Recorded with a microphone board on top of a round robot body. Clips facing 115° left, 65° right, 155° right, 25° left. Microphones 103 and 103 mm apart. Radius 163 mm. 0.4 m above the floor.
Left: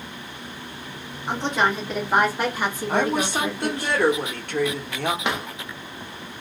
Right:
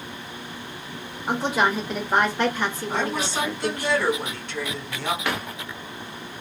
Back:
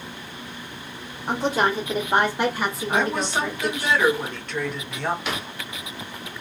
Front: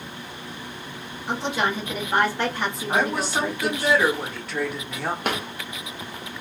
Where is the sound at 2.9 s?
105° left, 1.3 m.